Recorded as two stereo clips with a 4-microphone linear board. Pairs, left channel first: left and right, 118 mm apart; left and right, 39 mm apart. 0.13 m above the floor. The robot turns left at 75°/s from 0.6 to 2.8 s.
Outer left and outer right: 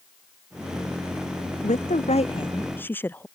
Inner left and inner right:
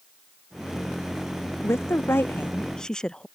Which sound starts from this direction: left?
A woman speaking, at 1.6 s.